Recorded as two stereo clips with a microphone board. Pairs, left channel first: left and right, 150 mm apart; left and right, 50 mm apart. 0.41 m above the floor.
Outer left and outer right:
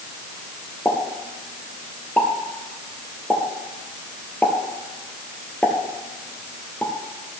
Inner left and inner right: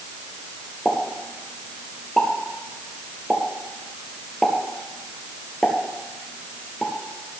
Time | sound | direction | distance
0.8 | a pop | 10° left (ahead or behind) | 1.9 m